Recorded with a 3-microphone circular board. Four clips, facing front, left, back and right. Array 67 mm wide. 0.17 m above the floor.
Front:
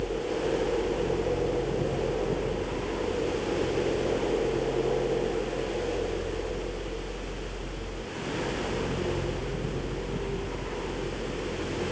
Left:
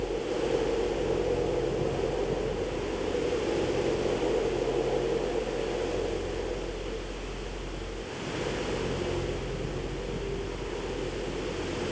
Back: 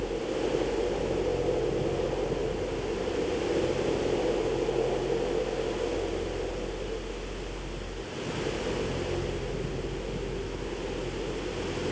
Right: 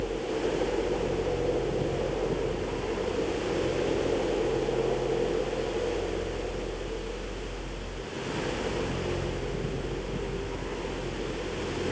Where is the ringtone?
No ringtone in this recording.